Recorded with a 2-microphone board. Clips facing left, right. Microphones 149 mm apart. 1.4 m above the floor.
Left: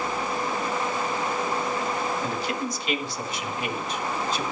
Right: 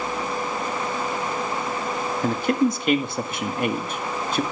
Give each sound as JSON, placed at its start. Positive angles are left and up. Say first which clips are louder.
{"t": 2.2, "sound": "a man speaking", "louder": "right 8 dB", "side_deg": -55, "distance_m": 1.7}